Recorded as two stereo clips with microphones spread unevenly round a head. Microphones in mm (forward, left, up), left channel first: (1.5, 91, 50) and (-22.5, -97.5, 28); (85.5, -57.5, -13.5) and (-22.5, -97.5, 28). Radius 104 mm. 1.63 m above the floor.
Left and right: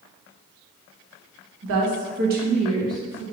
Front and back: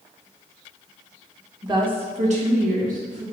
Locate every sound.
1.6 s a woman speaking: 105° right, 1.2 m; by 3.2 s straight behind, 1.4 m